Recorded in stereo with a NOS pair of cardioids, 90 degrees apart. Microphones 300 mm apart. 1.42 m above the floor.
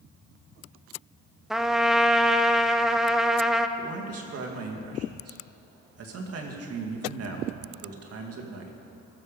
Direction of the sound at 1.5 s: Straight ahead.